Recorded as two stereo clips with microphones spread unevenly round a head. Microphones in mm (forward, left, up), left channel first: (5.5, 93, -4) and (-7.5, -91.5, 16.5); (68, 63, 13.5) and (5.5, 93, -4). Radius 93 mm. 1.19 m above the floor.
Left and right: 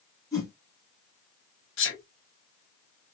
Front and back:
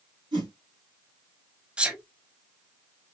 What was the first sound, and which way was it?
A whoosh, 160° left.